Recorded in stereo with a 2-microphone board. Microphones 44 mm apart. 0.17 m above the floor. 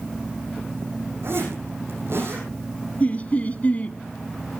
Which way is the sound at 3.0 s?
35° left (ahead or behind).